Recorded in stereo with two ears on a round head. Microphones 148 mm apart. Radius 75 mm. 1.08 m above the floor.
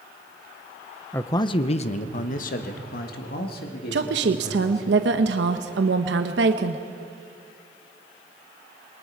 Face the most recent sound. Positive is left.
turn(degrees=-75)  # may be behind; listen again after turning